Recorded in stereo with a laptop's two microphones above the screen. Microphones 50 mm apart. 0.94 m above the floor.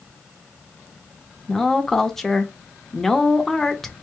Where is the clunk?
No clunk in this recording.